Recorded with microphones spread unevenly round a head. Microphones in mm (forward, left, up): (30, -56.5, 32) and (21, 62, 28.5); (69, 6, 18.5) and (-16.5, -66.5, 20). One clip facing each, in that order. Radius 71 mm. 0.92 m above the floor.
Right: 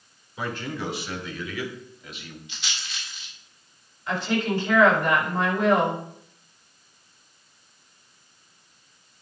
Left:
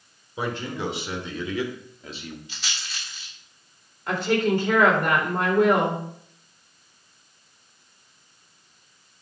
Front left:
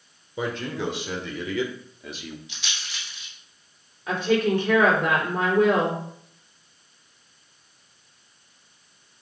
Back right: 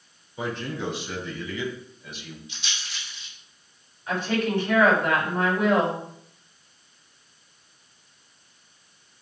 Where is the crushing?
No crushing in this recording.